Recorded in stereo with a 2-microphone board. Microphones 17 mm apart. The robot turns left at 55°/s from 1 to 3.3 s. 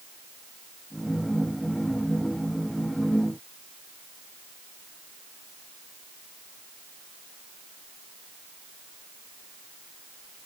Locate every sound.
Only background noise.